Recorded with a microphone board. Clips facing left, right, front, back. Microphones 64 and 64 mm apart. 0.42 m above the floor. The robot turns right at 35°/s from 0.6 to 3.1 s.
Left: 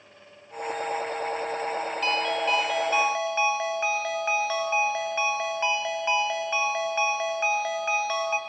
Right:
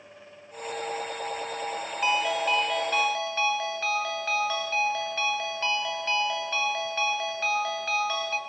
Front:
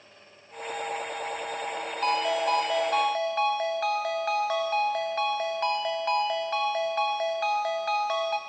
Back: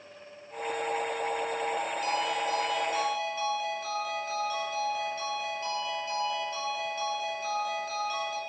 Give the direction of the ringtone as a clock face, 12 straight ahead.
1 o'clock.